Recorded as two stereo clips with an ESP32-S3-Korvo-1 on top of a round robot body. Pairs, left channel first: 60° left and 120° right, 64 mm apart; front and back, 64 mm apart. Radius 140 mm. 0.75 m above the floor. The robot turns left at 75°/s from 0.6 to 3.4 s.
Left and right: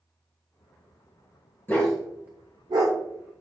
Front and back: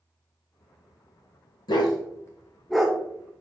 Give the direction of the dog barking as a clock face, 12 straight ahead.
12 o'clock.